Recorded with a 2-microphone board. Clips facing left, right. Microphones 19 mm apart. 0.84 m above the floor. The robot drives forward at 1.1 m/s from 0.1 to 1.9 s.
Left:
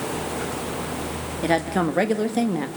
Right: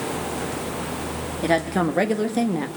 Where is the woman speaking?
5° left (ahead or behind), 1.8 m.